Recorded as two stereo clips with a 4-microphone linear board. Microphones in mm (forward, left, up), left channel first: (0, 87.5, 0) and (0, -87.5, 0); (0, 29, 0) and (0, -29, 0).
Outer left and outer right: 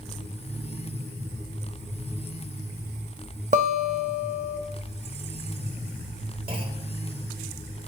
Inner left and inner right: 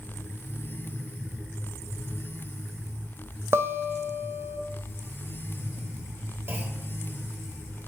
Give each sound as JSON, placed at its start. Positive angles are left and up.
{"t": 3.5, "sound": "a guitar", "side_deg": -50, "distance_m": 0.6}
{"t": 6.5, "sound": "a clunk", "side_deg": -30, "distance_m": 1.1}